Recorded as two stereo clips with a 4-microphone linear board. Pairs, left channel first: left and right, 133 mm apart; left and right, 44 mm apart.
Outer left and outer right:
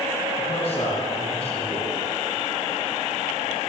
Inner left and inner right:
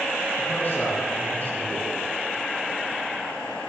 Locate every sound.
0.4 s a man speaking: 55° left (ahead or behind), 4.5 m